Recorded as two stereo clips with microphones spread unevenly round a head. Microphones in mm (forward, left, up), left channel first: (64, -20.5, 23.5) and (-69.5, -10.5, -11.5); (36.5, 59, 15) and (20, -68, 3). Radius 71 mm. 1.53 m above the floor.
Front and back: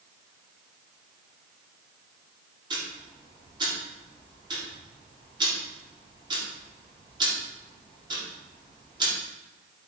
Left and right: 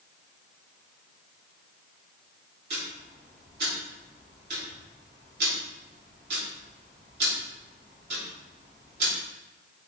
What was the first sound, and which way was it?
Ticking, 125° right.